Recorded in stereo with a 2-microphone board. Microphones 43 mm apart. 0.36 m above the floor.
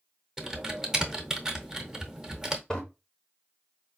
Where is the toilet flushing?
15° left (ahead or behind), 1.0 m.